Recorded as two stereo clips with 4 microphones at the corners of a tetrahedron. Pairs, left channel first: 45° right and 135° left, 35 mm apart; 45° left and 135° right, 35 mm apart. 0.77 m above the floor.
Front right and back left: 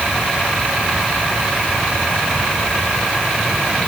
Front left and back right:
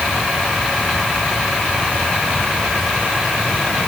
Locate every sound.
Only background noise.